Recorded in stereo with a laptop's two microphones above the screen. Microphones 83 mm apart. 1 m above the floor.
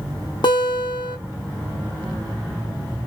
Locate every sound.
0.4 s a guitar: 60° left (ahead or behind), 0.9 m